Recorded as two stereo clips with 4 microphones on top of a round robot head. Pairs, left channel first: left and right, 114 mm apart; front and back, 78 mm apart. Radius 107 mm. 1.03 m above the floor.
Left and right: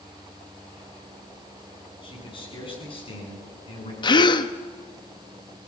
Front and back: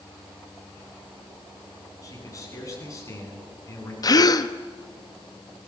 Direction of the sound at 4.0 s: 40° left.